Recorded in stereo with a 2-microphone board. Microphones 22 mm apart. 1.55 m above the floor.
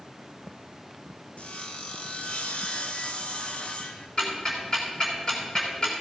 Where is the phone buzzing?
No phone buzzing in this recording.